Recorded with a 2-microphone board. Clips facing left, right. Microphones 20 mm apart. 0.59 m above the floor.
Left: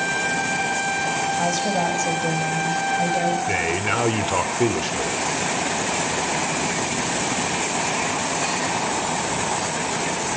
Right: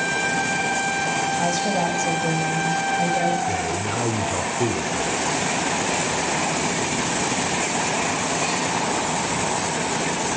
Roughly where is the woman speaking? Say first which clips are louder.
Even; centre.